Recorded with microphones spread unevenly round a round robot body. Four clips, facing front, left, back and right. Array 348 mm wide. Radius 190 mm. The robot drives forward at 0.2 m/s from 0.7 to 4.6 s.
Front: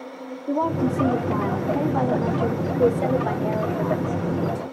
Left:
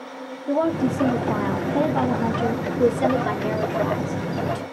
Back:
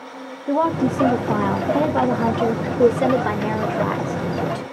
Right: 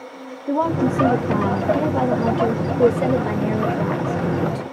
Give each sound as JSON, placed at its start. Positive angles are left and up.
{"t": 0.5, "sound": "a woman speaking", "azimuth_deg": -150, "distance_m": 1.0}